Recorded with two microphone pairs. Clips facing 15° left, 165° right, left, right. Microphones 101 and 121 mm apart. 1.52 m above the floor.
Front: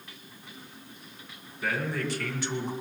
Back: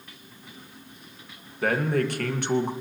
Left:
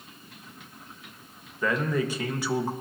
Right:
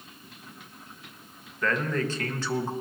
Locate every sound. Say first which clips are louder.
1.6 s a man speaking: back 7 dB, left 1 dB; 165° left, 1.8 m